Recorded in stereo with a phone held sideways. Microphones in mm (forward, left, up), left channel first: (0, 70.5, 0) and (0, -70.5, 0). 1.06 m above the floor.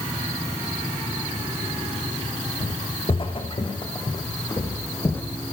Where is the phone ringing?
I don't hear a phone ringing.